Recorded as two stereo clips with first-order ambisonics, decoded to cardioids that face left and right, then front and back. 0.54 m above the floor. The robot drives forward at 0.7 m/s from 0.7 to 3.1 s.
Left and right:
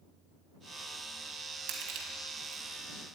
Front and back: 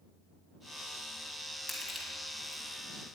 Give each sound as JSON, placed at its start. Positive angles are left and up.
{"t": 1.7, "sound": "crushing", "azimuth_deg": -95, "distance_m": 2.5}